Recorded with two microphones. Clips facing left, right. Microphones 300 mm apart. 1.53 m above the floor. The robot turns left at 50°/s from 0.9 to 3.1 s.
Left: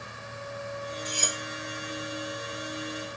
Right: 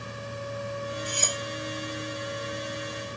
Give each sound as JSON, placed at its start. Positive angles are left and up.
{"t": 1.1, "sound": "cutlery clinking", "side_deg": 30, "distance_m": 1.2}